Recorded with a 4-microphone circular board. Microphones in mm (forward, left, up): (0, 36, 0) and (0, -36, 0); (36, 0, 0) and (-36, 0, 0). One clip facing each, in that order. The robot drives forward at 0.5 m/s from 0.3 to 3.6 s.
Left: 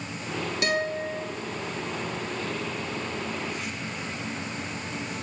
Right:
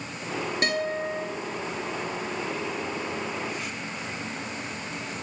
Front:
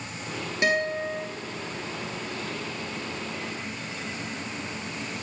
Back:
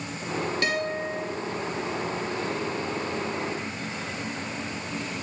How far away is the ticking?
I don't hear ticking.